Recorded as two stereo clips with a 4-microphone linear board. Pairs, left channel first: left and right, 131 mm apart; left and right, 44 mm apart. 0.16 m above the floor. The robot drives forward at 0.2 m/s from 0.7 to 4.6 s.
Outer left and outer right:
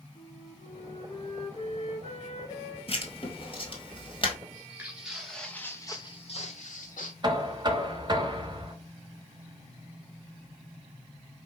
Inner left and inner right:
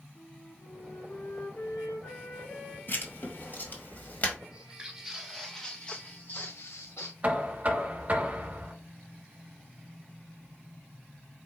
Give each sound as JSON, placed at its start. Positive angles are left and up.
{"t": 0.1, "sound": "a flute", "side_deg": 50, "distance_m": 1.7}
{"t": 2.9, "sound": "writing", "side_deg": 50, "distance_m": 1.2}
{"t": 4.5, "sound": "footsteps", "side_deg": -15, "distance_m": 1.4}
{"t": 7.2, "sound": "knocking", "side_deg": -35, "distance_m": 1.0}